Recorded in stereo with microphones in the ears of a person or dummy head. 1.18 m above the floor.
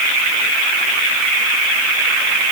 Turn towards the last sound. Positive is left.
No sound to turn to.